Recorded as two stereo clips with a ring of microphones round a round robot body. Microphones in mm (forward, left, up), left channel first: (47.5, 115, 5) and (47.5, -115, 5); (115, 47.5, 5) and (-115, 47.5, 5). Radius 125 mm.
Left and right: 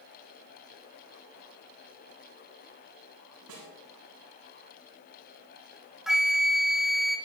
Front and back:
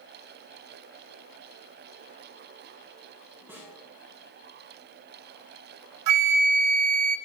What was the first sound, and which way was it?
A snare drum, 95° right.